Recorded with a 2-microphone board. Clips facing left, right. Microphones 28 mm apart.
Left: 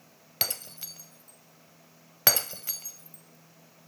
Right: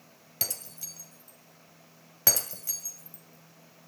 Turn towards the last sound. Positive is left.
turn(degrees=45)  # may be behind; listen again after turning